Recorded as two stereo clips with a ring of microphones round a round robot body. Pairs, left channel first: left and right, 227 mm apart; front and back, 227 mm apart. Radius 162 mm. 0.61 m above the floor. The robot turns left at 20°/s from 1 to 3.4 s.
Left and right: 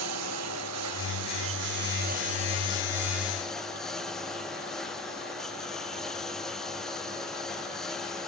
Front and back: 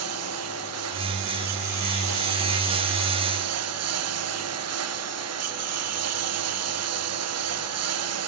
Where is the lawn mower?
135° right; by 8.3 s straight behind.